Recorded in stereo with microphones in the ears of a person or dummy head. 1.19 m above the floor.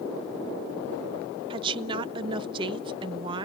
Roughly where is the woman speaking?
Right.